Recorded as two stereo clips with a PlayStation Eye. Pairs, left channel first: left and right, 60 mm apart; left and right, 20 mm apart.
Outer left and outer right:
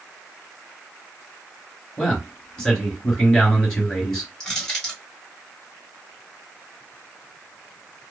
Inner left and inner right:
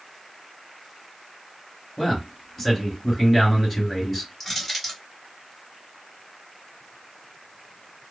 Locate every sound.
2.0 s a man speaking: 5° left (ahead or behind), 2.5 m
4.4 s crushing: 10° left (ahead or behind), 2 m